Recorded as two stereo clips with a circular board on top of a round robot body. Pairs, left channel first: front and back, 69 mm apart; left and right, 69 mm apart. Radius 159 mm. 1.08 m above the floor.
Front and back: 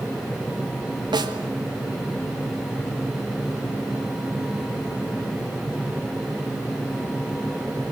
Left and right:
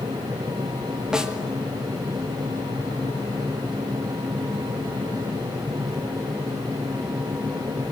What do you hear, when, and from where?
1.1 s a snare drum: 170° right, 2 m